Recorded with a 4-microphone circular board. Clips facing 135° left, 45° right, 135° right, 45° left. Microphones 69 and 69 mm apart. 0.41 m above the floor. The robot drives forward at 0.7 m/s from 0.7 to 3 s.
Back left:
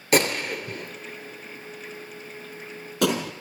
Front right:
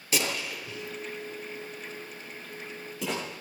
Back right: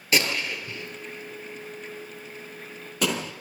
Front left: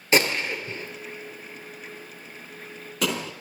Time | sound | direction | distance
0.1 | a gunshot | 110° left | 1.9 m